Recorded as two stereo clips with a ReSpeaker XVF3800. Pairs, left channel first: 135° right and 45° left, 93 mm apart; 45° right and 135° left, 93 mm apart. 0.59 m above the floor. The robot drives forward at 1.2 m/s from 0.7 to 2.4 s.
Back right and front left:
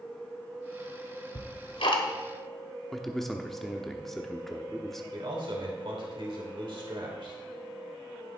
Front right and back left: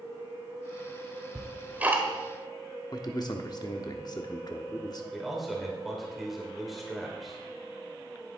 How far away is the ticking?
About 0.9 m.